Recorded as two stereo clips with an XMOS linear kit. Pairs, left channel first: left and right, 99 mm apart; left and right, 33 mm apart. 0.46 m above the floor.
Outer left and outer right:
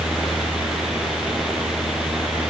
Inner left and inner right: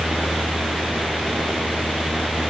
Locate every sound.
Only background noise.